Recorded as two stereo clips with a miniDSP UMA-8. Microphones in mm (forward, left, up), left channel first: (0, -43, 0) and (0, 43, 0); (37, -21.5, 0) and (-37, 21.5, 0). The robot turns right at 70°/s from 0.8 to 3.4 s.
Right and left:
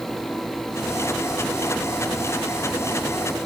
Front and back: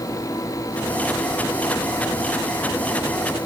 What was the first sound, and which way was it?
Only background noise.